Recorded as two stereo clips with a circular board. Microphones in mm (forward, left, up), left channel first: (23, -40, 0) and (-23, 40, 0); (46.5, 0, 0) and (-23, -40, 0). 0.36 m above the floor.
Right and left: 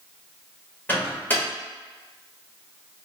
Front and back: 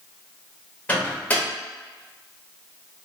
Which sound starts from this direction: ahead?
A microwave, at 0.9 s.